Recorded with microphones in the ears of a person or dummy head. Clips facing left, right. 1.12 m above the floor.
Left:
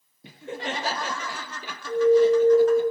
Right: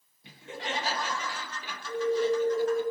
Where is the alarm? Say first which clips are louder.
Left 9 dB; 40° left (ahead or behind), 4 m.